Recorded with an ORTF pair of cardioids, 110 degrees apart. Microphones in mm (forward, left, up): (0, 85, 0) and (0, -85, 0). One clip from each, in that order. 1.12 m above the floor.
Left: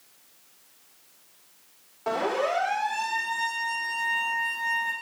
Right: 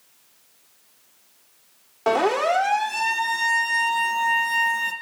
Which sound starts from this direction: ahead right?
A siren, at 2.1 s.